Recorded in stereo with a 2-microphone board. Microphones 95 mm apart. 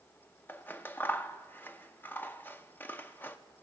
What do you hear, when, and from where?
0.5 s scissors: 20° left (ahead or behind), 0.5 m